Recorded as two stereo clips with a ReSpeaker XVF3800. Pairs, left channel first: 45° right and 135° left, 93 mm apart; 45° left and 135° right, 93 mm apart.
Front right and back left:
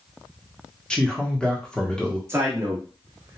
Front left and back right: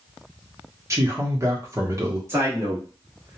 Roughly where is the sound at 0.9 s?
Behind right.